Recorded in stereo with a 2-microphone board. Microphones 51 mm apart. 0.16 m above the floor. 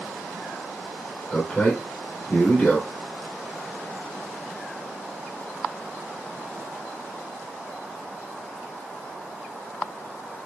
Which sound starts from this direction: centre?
A man speaking, at 1.3 s.